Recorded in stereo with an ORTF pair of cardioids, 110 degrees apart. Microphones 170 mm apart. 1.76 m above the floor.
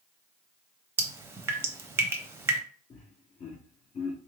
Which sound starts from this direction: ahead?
Dripping, at 1.0 s.